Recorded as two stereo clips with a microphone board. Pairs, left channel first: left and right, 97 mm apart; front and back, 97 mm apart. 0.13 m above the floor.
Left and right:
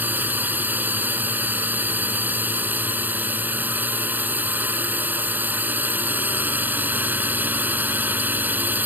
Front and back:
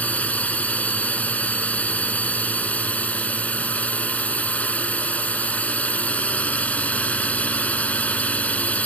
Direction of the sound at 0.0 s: 50° right.